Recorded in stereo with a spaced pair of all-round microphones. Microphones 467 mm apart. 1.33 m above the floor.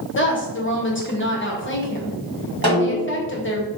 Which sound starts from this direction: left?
A woman speaking, at 0.1 s.